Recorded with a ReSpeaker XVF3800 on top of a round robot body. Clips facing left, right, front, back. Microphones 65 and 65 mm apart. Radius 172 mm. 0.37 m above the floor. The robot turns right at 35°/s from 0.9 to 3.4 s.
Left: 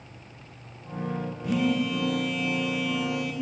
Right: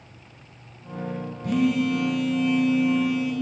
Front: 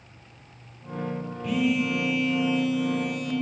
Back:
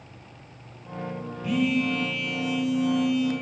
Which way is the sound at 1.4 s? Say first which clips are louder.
Right 4 dB, even; 90° right.